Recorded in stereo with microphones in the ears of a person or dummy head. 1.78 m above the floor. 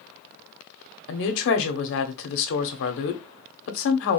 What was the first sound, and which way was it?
A woman speaking, 65° left (ahead or behind).